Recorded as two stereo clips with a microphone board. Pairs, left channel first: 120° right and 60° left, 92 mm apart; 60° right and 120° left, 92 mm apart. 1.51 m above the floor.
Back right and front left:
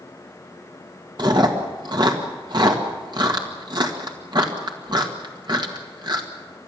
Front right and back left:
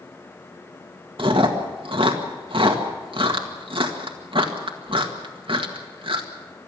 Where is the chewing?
100° left, 1.9 m.